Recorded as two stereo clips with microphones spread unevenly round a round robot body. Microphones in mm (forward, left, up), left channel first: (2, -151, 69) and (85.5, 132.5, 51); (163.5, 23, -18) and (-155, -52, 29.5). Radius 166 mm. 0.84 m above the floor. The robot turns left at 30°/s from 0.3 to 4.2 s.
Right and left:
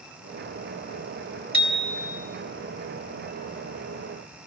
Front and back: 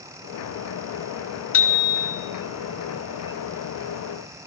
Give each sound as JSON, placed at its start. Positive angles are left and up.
{"t": 1.5, "sound": "a bicycle bell", "azimuth_deg": -30, "distance_m": 3.0}